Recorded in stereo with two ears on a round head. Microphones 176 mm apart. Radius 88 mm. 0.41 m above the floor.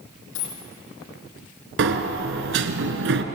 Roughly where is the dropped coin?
Left.